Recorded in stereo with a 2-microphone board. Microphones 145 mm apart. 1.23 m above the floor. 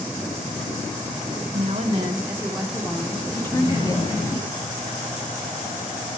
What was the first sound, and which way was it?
A woman speaking, 60° right (ahead or behind).